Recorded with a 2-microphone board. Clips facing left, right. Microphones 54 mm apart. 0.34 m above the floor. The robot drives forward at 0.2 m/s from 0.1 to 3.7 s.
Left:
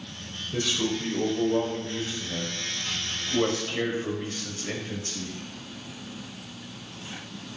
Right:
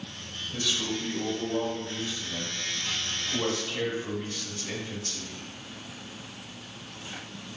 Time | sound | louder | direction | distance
0.5 | a man speaking | left 4 dB | 35° left (ahead or behind) | 0.9 m